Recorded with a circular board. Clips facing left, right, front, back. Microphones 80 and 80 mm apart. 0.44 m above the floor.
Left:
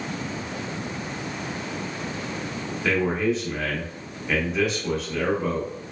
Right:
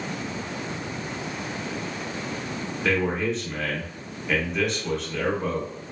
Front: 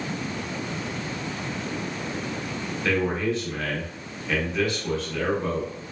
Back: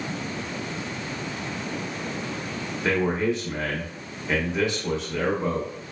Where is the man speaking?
175° left, 0.7 m.